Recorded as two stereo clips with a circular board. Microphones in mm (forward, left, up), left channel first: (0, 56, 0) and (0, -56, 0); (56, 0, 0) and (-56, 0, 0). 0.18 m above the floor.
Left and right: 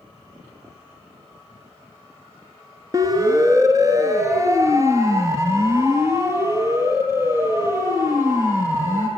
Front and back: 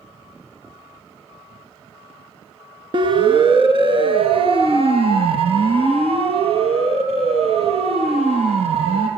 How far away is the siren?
About 2.5 m.